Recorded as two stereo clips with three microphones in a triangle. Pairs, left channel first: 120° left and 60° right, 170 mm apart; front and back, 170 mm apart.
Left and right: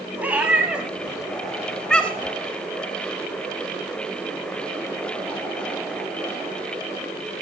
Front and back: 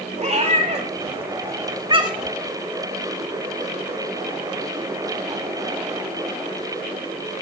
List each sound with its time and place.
0.2 s a cat meowing: 140° right, 1.8 m; by 2.4 s 175° left, 1.0 m